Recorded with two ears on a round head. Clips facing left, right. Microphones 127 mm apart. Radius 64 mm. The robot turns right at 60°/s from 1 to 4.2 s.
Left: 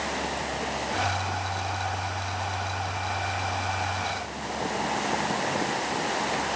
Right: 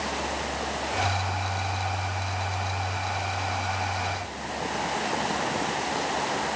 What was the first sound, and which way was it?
Only background noise.